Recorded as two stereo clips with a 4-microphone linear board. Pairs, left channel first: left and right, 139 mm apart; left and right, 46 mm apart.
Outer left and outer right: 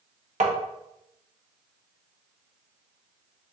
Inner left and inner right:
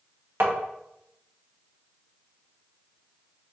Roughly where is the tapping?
Right.